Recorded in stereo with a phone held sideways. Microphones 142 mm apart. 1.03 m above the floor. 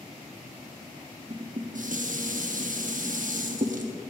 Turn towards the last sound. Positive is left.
turn(degrees=-65)  # may be behind; listen again after turning